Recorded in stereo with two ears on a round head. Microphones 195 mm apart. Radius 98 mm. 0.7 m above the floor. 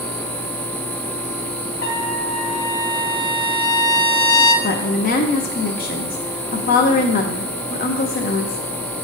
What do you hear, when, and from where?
1.8 s a trumpet: 45° left (ahead or behind), 0.9 m
4.6 s a woman speaking: 40° left (ahead or behind), 0.6 m